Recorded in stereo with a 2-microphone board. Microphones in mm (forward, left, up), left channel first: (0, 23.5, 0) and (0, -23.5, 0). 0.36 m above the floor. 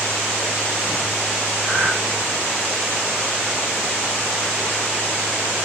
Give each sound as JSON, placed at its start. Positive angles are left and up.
{"t": 1.6, "sound": "breathing", "side_deg": 0, "distance_m": 1.4}